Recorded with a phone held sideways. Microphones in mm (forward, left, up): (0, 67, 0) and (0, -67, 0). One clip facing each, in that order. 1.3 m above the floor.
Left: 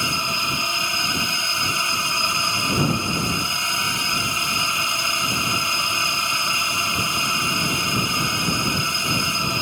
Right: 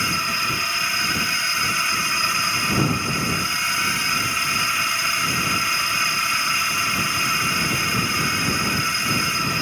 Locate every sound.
0.0 s a drone: 20° left (ahead or behind)